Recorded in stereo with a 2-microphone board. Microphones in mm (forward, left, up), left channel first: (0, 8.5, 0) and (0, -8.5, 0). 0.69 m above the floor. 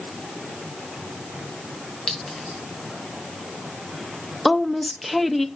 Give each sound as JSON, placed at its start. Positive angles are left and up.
{"t": 2.1, "sound": "a clink", "side_deg": 50, "distance_m": 2.5}
{"t": 4.5, "sound": "a woman speaking", "side_deg": 10, "distance_m": 0.7}